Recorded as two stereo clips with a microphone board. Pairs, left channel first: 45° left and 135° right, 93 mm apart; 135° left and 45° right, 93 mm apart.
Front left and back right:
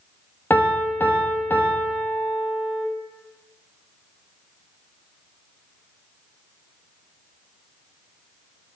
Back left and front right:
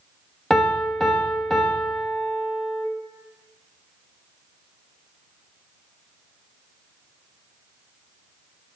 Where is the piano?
50° left, 1.0 m.